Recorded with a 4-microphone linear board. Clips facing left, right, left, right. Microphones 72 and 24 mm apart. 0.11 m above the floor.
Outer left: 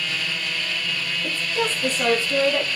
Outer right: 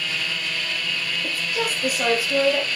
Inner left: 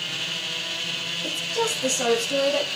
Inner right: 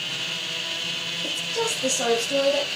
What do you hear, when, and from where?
1.2 s a woman speaking: 10° right (ahead or behind), 4 m